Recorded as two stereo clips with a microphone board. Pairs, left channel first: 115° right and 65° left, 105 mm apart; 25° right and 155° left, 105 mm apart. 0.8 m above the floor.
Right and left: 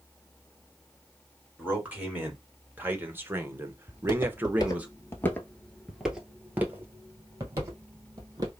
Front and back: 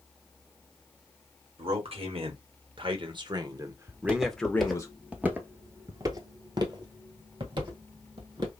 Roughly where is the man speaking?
Behind left.